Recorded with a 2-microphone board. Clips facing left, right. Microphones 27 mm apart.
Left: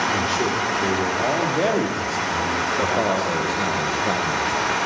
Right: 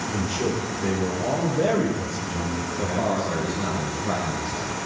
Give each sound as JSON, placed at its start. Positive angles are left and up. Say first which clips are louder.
{"t": 0.1, "sound": "a man speaking", "louder": "left 5 dB", "side_deg": 60, "distance_m": 5.0}
{"t": 2.8, "sound": "a man speaking", "louder": "left 1 dB", "side_deg": 55, "distance_m": 3.0}